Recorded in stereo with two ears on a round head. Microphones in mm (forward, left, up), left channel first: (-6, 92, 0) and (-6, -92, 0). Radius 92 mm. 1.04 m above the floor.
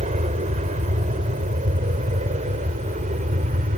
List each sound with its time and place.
0.0 s an aircraft: 35° right (ahead or behind)